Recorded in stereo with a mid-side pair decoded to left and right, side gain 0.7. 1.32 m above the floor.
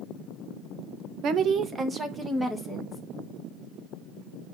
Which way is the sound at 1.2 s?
50° right.